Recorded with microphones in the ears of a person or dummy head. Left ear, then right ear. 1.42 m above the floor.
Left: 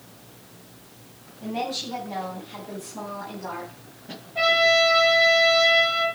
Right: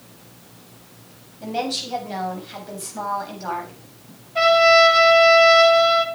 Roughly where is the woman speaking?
Right.